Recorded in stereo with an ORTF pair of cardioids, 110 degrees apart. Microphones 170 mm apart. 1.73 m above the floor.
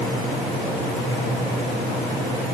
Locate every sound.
Only background noise.